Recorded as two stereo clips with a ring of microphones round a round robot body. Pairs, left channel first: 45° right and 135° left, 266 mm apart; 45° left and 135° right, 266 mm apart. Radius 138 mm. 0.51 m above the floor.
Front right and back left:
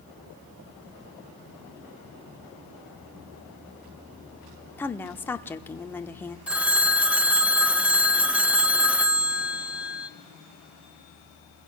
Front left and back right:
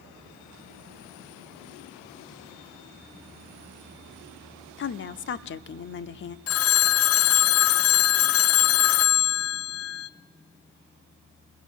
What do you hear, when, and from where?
4.8 s a woman speaking: 35° left, 0.9 m
6.5 s a phone ringing: 50° left, 0.6 m